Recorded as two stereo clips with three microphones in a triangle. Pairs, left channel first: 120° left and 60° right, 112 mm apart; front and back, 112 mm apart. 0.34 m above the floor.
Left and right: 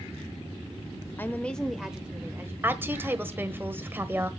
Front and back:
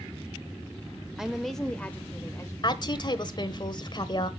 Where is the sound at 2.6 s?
Straight ahead, 1.2 m.